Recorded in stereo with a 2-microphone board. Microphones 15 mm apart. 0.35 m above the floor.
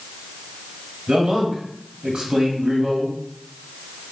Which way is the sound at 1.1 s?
60° right (ahead or behind).